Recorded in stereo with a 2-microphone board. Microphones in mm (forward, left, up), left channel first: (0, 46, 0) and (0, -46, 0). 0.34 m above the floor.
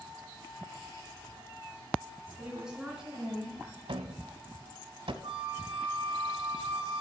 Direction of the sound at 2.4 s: 10° right (ahead or behind).